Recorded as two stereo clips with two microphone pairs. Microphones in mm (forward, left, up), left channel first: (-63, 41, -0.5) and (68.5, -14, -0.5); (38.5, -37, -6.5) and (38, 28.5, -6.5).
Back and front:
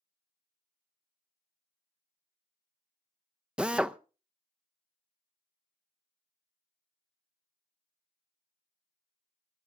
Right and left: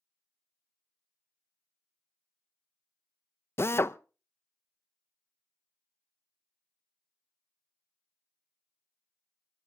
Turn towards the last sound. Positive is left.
turn(degrees=-105)